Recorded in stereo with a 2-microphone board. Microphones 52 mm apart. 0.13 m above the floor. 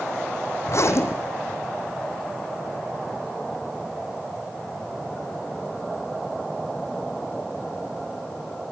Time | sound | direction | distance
0.7 | a zipper | 60° left (ahead or behind) | 3 m